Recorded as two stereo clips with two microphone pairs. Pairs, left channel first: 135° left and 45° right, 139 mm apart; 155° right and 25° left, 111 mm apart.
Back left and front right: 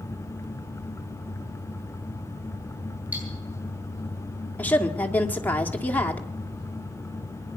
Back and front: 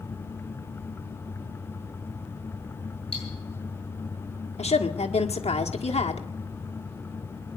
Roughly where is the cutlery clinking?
Behind right.